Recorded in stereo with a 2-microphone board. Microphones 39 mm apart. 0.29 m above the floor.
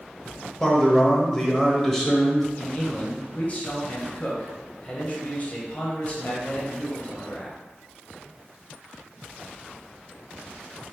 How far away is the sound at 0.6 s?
About 0.9 m.